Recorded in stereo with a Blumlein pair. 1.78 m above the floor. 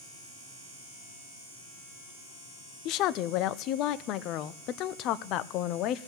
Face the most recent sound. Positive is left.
turn(degrees=35)